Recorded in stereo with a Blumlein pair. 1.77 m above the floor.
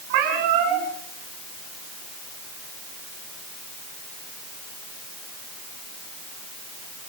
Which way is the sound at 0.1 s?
50° right.